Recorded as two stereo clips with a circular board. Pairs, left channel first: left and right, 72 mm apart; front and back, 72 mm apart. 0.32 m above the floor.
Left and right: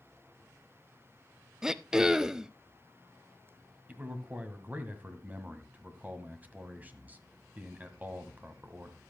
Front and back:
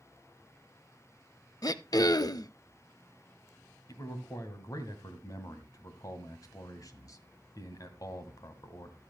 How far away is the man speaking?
About 1.8 m.